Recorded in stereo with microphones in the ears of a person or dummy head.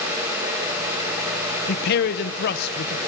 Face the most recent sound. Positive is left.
turn(degrees=55)  # may be behind; listen again after turning